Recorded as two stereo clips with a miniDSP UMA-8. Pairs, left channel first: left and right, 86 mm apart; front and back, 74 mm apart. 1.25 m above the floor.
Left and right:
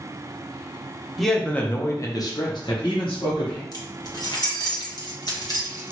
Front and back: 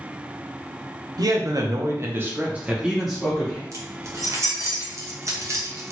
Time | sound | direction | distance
1.2 | a man speaking | straight behind | 1.0 m
3.7 | keys jangling | 130° left | 1.0 m